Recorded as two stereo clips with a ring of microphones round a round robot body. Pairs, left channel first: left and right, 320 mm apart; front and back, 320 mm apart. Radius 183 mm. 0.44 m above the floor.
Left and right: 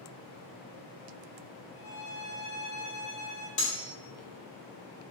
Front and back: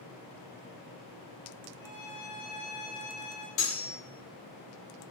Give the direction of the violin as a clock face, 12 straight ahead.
7 o'clock.